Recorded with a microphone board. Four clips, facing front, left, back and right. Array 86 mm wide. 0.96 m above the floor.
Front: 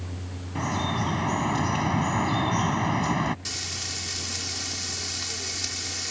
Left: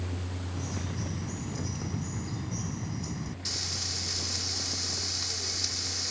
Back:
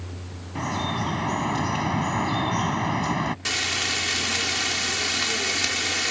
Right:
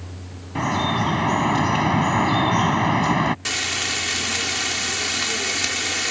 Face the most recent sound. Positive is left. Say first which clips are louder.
# right 13 dB, back 10 dB
turn(degrees=-125)